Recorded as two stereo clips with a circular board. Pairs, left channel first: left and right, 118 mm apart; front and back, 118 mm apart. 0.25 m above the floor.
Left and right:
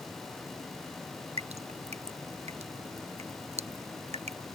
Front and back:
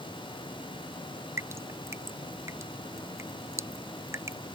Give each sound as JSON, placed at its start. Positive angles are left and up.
{"t": 1.4, "sound": "dripping", "azimuth_deg": -115}